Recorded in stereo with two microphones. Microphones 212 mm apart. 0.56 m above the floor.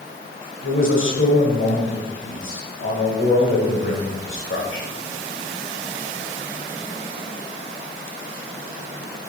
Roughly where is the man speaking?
Left.